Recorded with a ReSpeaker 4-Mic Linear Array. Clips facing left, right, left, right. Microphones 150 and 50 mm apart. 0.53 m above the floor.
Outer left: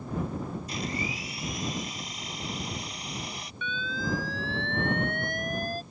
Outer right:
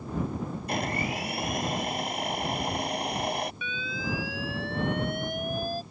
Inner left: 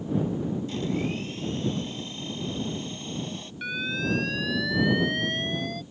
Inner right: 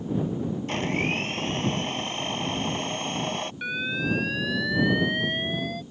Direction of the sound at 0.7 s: 60° right (ahead or behind).